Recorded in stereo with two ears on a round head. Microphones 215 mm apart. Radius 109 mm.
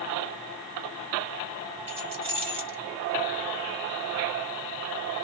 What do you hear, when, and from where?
1.9 s keys jangling: 25° right (ahead or behind), 1.1 m